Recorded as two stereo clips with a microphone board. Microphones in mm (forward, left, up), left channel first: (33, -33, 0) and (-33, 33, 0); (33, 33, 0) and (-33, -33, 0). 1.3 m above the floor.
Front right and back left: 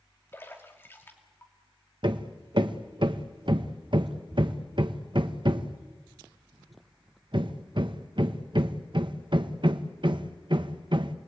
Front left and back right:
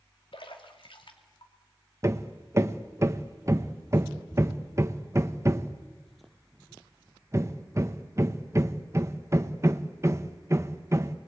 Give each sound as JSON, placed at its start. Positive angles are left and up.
{"t": 0.3, "sound": "a splash", "azimuth_deg": 20, "distance_m": 2.5}
{"t": 2.0, "sound": "hammering", "azimuth_deg": 165, "distance_m": 1.0}